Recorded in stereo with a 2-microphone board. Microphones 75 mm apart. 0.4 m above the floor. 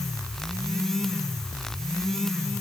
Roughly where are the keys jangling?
I don't hear keys jangling.